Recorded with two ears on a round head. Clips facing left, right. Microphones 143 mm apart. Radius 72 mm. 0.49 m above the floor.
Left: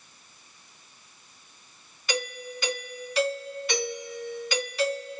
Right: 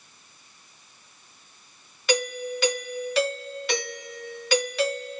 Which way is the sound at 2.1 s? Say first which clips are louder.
Right 7 dB; 55° right (ahead or behind).